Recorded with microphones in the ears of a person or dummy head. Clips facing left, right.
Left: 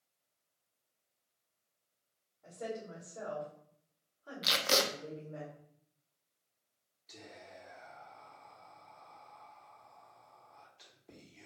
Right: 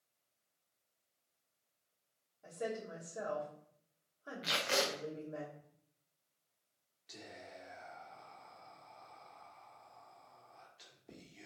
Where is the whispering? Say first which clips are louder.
Even; 10° right (ahead or behind), 1.2 m.